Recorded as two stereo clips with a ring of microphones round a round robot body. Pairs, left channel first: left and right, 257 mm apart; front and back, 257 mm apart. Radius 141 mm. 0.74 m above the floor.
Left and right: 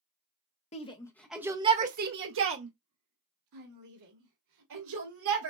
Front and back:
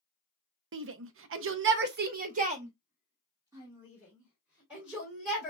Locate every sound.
0.7 s a shout: 150° left, 0.7 m; by 5.5 s 90° right, 2 m